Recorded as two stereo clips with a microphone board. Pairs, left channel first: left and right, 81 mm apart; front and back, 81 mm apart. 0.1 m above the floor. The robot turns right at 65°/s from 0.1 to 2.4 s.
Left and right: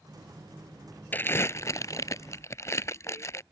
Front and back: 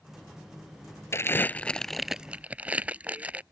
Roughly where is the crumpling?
Ahead left.